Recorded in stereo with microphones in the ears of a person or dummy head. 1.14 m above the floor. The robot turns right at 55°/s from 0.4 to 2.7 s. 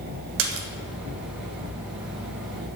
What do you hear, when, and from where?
0.4 s a splash: 65° right (ahead or behind), 1.3 m; by 0.7 s 60° right (ahead or behind), 1.3 m